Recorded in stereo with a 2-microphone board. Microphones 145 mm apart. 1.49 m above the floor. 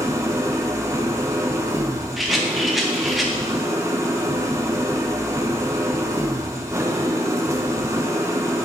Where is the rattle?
Centre (ahead or behind), 1.3 m.